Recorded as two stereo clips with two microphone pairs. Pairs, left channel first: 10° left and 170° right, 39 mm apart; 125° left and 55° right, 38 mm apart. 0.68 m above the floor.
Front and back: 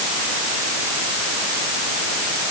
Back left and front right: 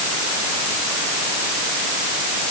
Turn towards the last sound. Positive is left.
No sound to turn to.